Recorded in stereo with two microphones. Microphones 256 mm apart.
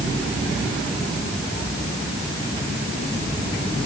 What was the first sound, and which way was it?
Only background noise.